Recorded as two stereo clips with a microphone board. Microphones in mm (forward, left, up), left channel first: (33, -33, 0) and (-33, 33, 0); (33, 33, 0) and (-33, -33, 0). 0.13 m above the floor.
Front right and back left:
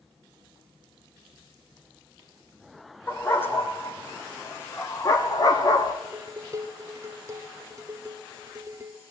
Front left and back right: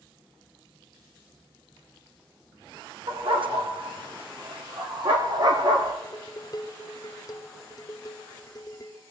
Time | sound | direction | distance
3.1 | a dog barking | 115° right | 3 m
6.0 | dishes clattering | 85° left | 1.8 m